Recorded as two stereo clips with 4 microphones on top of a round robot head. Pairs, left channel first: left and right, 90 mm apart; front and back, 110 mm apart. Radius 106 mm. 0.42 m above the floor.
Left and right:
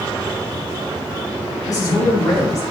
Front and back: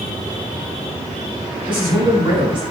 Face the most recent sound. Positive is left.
turn(degrees=140)